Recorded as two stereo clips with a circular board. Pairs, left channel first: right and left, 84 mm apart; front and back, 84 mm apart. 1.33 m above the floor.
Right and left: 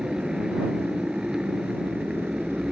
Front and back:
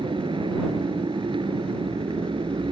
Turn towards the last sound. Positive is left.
turn(degrees=170)